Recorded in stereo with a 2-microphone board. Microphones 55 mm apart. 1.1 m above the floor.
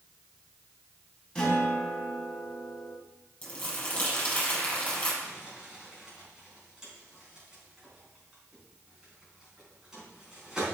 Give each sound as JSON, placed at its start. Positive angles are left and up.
{"t": 1.4, "sound": "a guitar", "side_deg": 15, "distance_m": 3.5}
{"t": 3.4, "sound": "crumpling", "side_deg": 25, "distance_m": 4.5}
{"t": 5.2, "sound": "crumpling", "side_deg": -10, "distance_m": 4.0}